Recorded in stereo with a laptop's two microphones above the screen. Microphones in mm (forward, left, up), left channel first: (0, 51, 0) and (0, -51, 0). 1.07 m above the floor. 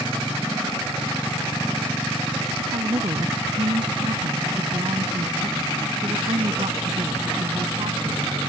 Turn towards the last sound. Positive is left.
turn(degrees=-60)  # may be behind; listen again after turning